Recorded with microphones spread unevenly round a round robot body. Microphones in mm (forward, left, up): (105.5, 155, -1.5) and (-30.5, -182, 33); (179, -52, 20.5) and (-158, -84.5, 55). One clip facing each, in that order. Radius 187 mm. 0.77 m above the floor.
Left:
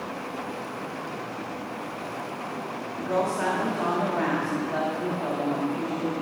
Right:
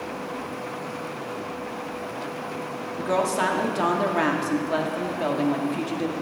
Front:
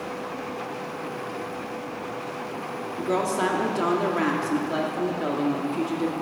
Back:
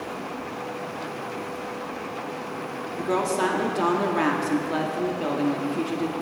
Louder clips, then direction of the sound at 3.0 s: Right 2 dB, even; 90° right.